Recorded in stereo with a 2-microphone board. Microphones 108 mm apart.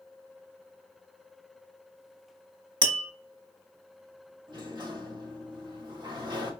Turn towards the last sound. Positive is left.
turn(degrees=-45)  # may be behind; listen again after turning